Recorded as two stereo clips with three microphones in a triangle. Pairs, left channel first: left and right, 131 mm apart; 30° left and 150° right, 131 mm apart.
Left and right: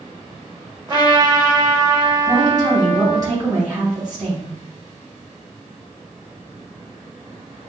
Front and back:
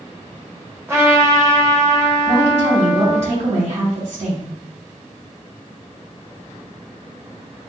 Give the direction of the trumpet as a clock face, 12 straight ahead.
3 o'clock.